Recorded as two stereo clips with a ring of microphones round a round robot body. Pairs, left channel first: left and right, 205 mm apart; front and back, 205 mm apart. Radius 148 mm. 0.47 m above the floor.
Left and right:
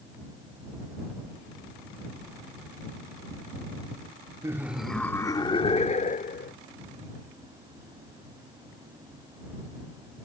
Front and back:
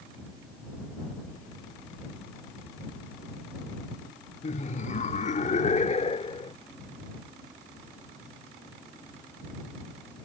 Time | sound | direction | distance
4.4 | laughter | 25° right | ?